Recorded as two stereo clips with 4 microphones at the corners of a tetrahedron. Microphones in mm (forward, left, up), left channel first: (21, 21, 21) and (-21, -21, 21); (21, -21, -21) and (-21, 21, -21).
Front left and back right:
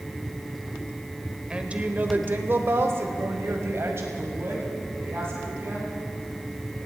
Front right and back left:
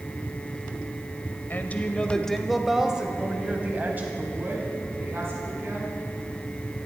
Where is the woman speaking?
70° right, 1.2 m; by 5.9 s straight behind, 3 m.